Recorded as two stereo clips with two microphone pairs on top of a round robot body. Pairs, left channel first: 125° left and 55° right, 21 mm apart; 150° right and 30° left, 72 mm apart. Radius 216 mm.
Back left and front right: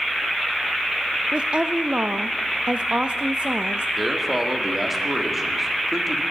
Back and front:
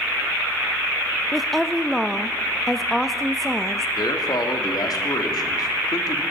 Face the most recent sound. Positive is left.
turn(degrees=-140)